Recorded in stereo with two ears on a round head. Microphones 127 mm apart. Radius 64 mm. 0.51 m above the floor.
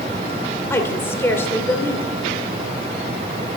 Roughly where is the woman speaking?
Centre.